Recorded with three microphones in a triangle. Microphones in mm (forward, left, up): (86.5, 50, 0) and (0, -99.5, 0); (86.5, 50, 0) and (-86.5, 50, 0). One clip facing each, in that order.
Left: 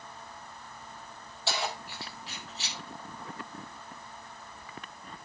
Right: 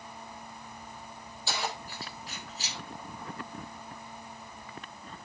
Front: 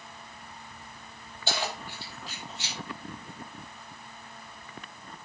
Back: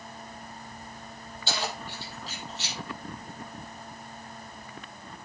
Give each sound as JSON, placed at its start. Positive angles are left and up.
{"t": 1.5, "sound": "keys jangling", "azimuth_deg": 40, "distance_m": 6.5}